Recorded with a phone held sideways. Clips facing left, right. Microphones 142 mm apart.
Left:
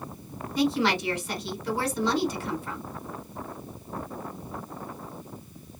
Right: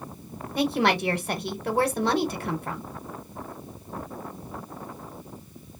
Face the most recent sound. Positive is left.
turn(degrees=-55)  # may be behind; listen again after turning